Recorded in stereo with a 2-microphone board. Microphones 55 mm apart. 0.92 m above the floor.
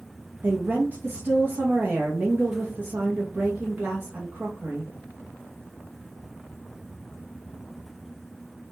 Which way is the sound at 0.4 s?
35° right (ahead or behind).